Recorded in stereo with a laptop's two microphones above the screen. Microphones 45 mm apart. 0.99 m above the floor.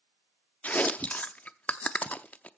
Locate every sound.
0.6 s chewing: 35° left (ahead or behind), 0.6 m